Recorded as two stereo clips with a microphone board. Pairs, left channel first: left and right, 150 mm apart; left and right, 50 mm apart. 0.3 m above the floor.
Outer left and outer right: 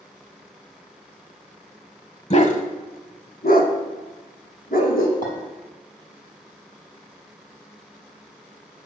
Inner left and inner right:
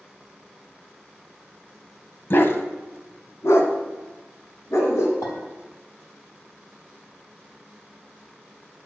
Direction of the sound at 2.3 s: 50° left (ahead or behind).